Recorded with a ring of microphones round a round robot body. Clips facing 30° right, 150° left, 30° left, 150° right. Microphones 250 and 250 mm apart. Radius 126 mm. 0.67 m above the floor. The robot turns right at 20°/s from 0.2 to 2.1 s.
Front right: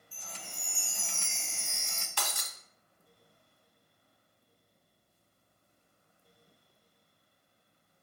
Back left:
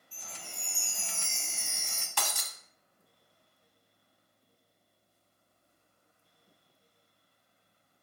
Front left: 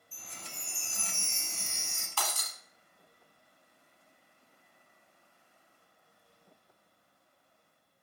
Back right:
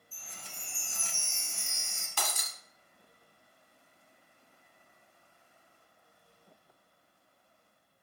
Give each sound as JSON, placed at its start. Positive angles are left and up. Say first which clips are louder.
{"t": 0.1, "sound": "a chime", "louder": "even, front left 3 dB", "azimuth_deg": 40, "distance_m": 0.8}
{"t": 2.2, "sound": "breaking glass", "louder": "back left 2 dB, even", "azimuth_deg": 135, "distance_m": 1.1}